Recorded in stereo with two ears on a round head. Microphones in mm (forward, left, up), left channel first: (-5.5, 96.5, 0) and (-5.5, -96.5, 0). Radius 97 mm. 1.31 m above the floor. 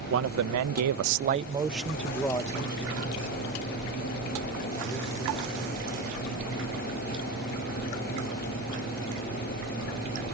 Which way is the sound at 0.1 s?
65° right (ahead or behind).